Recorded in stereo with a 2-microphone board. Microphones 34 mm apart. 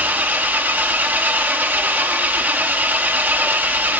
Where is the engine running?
65° right (ahead or behind), 1.0 m.